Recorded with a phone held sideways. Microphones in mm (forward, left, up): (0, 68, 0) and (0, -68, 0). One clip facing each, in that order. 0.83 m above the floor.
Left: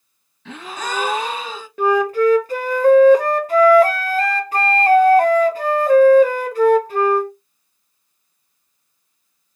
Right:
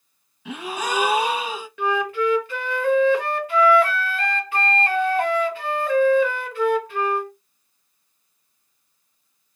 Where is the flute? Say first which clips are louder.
Left 7 dB; 40° left (ahead or behind), 0.6 m.